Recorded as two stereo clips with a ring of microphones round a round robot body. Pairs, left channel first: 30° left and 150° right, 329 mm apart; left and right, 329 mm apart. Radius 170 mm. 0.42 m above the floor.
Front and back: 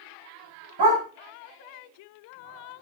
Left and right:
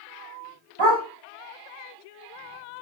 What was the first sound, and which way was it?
A dog barking, 120° right.